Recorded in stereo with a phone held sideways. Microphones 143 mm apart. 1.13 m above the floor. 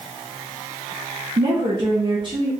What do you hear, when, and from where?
1.4 s a woman speaking: 35° right (ahead or behind), 0.9 m